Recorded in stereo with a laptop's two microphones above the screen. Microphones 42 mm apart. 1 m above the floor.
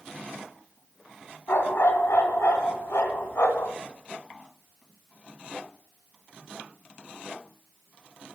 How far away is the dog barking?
About 2.0 m.